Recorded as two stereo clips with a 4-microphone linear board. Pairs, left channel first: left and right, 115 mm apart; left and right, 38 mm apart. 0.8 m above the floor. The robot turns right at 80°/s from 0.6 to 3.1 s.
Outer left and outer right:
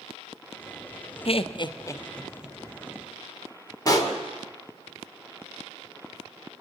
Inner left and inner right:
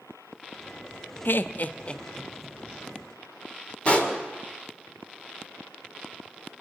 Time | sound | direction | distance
1.2 | laughter | 55° left (ahead or behind) | 0.8 m
3.9 | a pop | 35° left (ahead or behind) | 2 m